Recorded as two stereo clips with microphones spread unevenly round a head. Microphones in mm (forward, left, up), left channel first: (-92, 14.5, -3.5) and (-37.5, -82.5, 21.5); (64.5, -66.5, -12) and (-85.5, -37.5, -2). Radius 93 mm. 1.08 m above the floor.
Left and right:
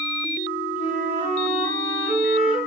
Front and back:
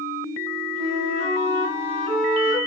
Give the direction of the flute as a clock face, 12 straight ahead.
1 o'clock.